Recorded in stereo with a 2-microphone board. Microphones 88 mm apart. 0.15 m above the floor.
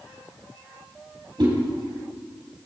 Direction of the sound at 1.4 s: 60° right (ahead or behind).